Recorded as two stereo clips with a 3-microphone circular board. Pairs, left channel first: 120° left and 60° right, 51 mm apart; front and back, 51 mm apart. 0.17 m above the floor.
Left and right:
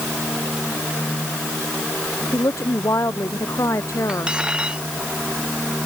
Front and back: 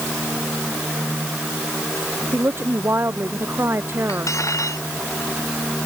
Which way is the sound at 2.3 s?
140° left.